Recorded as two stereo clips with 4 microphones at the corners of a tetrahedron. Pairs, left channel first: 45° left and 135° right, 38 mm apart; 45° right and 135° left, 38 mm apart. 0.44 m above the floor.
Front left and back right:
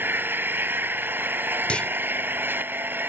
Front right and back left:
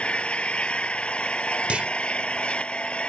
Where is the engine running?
105° right.